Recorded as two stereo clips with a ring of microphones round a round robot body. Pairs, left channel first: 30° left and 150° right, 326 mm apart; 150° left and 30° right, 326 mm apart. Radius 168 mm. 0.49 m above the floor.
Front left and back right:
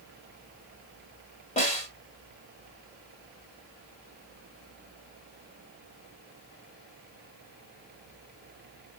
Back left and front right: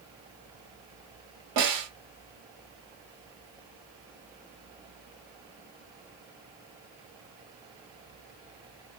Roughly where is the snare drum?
Ahead right.